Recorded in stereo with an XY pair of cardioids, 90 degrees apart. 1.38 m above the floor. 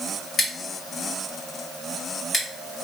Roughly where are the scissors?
Ahead left.